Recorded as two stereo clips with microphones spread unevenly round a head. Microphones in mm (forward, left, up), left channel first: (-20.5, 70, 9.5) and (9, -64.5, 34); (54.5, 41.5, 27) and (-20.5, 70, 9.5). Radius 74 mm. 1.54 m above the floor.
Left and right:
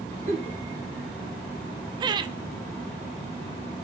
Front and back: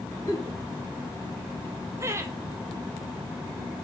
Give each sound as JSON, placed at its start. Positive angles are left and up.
{"t": 0.3, "sound": "a giggle", "azimuth_deg": -60, "distance_m": 2.5}
{"t": 2.0, "sound": "laughter", "azimuth_deg": -140, "distance_m": 0.7}